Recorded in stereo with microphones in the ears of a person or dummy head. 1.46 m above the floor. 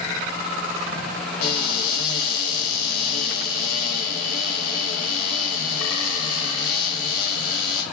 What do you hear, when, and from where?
1.4 s a cupboard door: 55° left (ahead or behind), 2.5 m